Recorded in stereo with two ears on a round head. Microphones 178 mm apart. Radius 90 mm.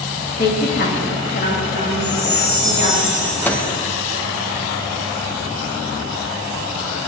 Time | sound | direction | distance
0.4 | a woman speaking | 50° left (ahead or behind) | 1.7 m
2.0 | a chime | 65° left (ahead or behind) | 2.5 m
3.5 | a microwave | 10° left (ahead or behind) | 0.9 m